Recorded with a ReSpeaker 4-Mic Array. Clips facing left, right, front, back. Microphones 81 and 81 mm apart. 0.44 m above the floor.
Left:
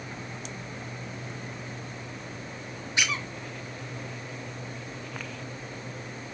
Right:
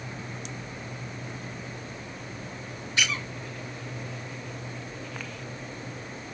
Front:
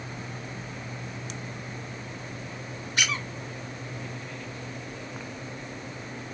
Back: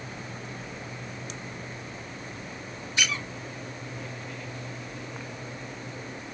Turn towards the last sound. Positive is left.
turn(degrees=20)